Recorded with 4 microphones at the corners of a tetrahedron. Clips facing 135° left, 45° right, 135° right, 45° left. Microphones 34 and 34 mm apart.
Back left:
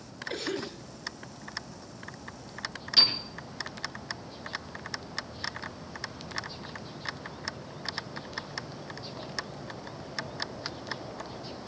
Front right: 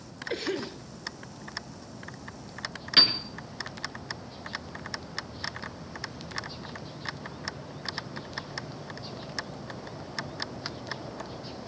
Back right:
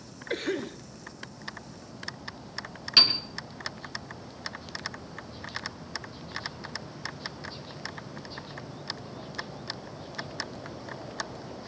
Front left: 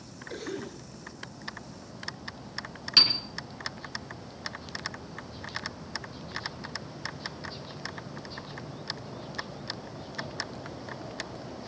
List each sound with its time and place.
0.3 s a cough: 115° right, 2.5 m
3.0 s a piano: 55° right, 2 m